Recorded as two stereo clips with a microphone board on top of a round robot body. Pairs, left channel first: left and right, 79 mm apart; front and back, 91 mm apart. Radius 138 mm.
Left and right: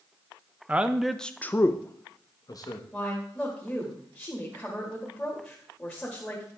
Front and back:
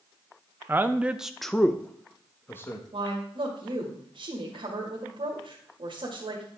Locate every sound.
0.7 s a man speaking: 140° right, 0.8 m; by 2.8 s 60° left, 1.4 m
2.9 s a woman speaking: 165° left, 2 m